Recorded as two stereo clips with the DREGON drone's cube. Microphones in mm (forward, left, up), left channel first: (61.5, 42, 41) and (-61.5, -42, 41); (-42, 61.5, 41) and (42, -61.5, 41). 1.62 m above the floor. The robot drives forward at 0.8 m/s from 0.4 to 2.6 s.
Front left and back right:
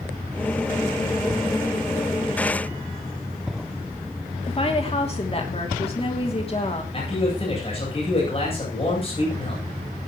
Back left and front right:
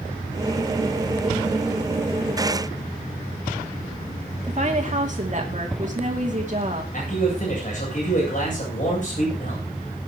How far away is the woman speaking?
About 3 m.